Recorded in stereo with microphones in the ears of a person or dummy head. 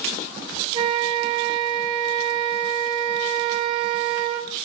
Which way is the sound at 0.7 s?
30° right (ahead or behind).